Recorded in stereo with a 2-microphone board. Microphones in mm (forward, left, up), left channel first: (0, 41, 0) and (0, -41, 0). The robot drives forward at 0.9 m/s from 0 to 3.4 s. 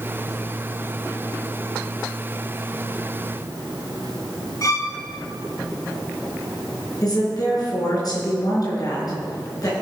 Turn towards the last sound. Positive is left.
turn(degrees=50)  # may be behind; listen again after turning